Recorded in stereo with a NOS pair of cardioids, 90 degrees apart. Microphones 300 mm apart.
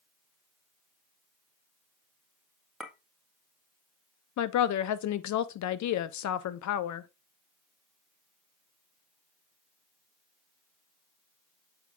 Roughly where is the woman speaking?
Ahead left.